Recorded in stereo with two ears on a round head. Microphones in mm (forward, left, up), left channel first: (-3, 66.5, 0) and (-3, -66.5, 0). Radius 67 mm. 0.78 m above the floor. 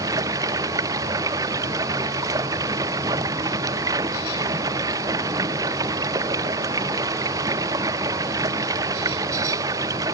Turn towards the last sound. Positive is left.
turn(degrees=-25)  # may be behind; listen again after turning